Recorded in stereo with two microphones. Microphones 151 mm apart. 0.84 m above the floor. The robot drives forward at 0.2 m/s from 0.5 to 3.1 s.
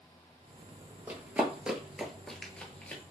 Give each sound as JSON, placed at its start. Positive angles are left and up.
{"t": 1.1, "sound": "running footsteps", "side_deg": -15, "distance_m": 0.9}